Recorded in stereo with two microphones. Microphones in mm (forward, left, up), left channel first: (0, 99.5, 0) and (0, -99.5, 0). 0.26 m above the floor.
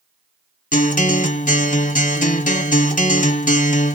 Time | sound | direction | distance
0.7 | a guitar | 40° left (ahead or behind) | 1.0 m